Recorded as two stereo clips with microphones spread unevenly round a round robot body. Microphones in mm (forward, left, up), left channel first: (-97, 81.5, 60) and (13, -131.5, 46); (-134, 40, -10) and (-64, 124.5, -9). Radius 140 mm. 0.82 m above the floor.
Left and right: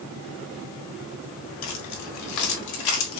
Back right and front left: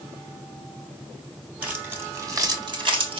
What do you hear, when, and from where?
1.6 s keys jangling: 125° left, 1.2 m; by 3.2 s 85° left, 1.0 m